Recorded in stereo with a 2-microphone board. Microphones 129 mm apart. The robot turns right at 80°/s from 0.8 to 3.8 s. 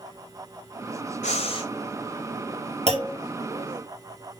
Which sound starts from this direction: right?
A clunk, at 2.9 s.